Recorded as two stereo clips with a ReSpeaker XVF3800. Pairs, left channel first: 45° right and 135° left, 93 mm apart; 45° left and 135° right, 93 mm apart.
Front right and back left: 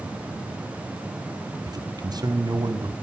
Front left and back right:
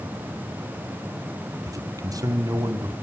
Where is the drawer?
I don't hear a drawer.